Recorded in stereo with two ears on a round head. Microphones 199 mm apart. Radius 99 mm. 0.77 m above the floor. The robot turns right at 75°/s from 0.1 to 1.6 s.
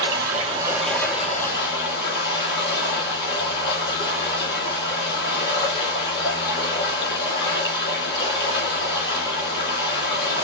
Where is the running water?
60° right, 3.5 m; by 10.4 s 55° left, 3.5 m.